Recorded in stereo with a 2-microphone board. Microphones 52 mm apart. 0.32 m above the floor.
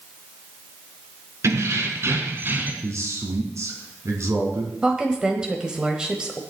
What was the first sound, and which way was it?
Keys jangling, 65° right (ahead or behind).